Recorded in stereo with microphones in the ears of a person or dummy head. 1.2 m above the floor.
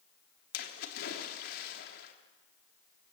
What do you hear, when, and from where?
0.5 s a splash: 50° left (ahead or behind), 3.5 m